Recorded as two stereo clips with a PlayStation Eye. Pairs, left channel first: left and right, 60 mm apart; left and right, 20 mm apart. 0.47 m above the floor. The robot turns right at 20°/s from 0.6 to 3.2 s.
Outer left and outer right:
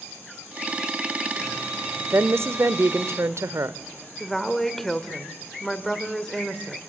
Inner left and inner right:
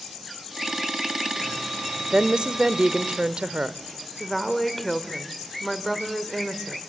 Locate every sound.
2.1 s a woman speaking: 45° right (ahead or behind), 1.1 m; by 3.8 s 55° right (ahead or behind), 1.1 m
4.2 s a woman speaking: 5° left (ahead or behind), 1.6 m